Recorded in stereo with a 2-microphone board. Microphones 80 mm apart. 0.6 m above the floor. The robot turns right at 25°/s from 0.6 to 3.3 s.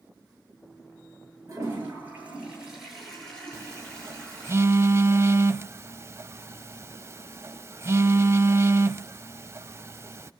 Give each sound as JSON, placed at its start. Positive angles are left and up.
{"t": 1.5, "sound": "a toilet flushing", "azimuth_deg": -35, "distance_m": 9.5}
{"t": 3.5, "sound": "a phone buzzing", "side_deg": -35, "distance_m": 0.6}